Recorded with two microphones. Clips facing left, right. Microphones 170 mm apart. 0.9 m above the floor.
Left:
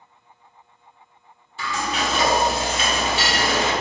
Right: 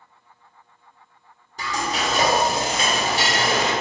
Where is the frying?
40° right (ahead or behind), 1.0 m.